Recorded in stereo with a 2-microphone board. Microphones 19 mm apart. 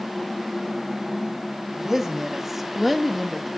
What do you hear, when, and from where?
1.8 s a woman speaking: 20° right (ahead or behind), 1.2 m; by 3.5 s 20° left (ahead or behind), 0.7 m